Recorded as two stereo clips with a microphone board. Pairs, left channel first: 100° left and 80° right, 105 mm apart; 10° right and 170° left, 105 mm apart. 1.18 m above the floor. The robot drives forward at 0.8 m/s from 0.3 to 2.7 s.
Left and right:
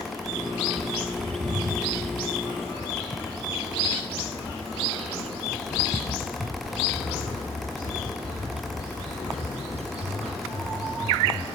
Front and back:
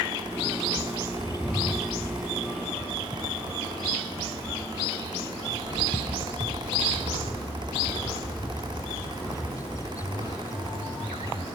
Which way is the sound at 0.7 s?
60° right.